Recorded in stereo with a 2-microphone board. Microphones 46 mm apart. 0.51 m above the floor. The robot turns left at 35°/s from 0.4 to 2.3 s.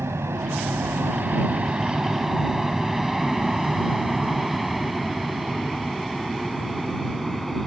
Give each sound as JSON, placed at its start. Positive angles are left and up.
{"t": 0.0, "sound": "an aircraft", "side_deg": -65}